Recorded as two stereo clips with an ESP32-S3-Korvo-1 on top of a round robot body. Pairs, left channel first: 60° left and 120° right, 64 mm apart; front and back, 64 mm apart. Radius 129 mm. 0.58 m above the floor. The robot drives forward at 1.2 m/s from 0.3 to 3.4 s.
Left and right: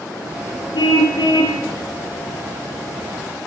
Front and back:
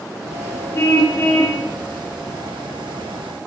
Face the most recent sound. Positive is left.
turn(degrees=90)